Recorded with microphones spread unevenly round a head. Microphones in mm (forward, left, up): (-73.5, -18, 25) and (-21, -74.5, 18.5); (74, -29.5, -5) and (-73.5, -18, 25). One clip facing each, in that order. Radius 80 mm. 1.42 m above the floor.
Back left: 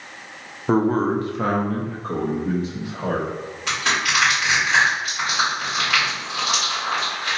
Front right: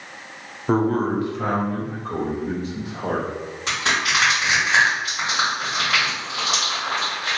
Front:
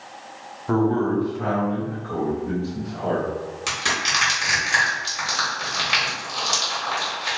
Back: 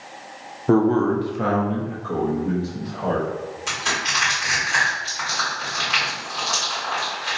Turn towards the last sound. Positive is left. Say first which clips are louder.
# even, even
turn(degrees=30)